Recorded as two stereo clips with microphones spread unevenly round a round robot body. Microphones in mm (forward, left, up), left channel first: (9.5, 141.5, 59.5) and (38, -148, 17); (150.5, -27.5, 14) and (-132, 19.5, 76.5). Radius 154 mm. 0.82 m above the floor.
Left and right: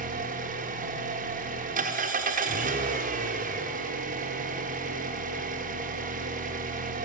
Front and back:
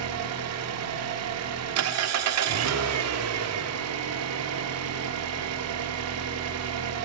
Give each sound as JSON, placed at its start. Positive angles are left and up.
{"t": 0.0, "sound": "an engine running", "azimuth_deg": -150, "distance_m": 1.1}